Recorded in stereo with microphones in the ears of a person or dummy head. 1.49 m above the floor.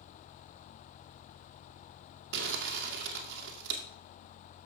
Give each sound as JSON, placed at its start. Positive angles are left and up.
{"t": 2.3, "sound": "crumpling", "side_deg": -60, "distance_m": 2.0}